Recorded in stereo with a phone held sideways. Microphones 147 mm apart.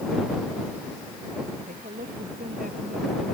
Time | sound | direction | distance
1.7 | a woman speaking | 90° right | ?